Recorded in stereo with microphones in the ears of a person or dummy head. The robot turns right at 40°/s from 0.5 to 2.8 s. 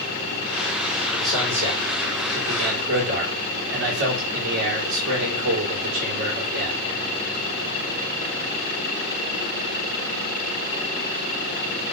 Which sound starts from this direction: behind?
A man speaking, at 1.2 s.